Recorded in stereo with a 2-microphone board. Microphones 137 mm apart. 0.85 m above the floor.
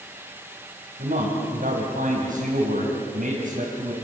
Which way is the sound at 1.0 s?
75° right (ahead or behind).